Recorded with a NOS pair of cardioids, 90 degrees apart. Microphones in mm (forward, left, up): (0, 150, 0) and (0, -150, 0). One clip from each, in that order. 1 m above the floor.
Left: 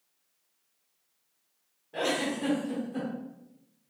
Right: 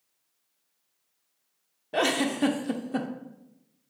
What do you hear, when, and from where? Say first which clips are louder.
1.9 s a giggle: right 4 dB; 65° right, 0.6 m